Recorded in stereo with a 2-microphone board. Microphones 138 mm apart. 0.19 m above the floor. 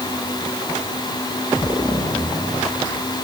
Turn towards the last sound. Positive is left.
No sound to turn to.